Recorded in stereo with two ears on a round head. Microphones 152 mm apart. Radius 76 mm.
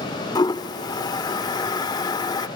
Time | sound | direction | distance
0.3 | a toilet flushing | 25° left (ahead or behind) | 0.6 m